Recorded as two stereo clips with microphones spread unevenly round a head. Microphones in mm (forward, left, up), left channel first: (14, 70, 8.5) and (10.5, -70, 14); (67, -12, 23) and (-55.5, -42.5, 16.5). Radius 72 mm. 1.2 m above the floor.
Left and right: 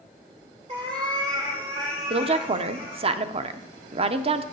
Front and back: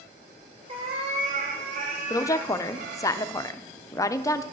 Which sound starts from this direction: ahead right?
A woman speaking, at 2.1 s.